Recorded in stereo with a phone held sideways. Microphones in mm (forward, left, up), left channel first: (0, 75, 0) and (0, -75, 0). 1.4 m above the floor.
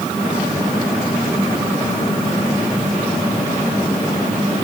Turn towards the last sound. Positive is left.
No sound to turn to.